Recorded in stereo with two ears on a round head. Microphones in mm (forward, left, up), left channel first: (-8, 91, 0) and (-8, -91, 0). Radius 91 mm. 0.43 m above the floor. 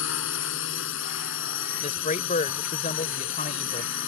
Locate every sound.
0.0 s a drone: 65° left (ahead or behind)
1.8 s a man speaking: 35° left (ahead or behind)